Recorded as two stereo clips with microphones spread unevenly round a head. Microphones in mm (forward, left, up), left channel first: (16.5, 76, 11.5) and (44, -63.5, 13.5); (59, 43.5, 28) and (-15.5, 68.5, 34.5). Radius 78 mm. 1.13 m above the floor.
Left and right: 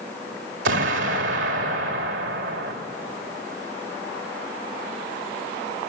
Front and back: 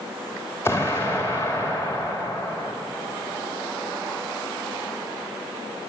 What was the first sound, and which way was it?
An explosion, 95° right.